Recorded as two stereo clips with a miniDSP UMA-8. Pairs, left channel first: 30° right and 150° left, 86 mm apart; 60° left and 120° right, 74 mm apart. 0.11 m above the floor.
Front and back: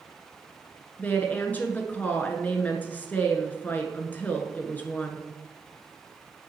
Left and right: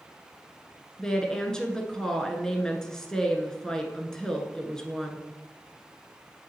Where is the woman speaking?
5° right, 1.1 m.